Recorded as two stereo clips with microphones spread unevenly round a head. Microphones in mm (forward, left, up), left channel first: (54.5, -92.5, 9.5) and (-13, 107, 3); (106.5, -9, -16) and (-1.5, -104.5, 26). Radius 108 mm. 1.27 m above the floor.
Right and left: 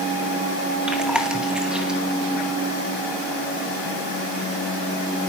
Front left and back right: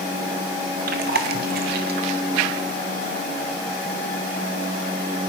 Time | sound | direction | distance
0.9 | chewing | 165° right | 1.2 m